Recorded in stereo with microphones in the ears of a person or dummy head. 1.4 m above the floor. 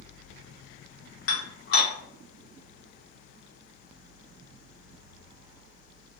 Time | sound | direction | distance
1.3 | dishes clattering | 65° left (ahead or behind) | 0.8 m